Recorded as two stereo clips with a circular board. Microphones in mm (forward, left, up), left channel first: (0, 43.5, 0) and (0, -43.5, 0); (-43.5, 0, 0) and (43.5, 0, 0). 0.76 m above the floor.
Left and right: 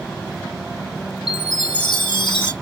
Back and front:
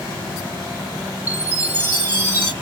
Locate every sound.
1.3 s a chime: 70° left, 1.4 m